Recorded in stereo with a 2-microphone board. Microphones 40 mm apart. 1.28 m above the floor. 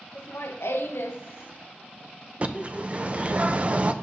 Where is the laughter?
80° left, 1.2 m; by 3.4 s 5° left (ahead or behind), 1.1 m.